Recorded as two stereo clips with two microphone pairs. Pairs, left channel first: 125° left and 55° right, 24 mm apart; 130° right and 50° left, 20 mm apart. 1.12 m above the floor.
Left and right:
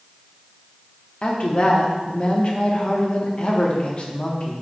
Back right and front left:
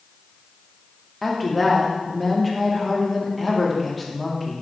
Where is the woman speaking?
145° left, 0.6 m.